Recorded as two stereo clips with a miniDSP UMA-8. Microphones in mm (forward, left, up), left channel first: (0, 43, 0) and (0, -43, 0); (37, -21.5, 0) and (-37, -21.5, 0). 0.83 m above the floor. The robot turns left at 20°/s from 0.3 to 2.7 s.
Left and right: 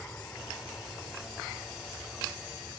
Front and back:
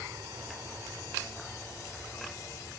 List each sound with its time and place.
0.0 s an aircraft: 150° left; by 2.8 s 100° left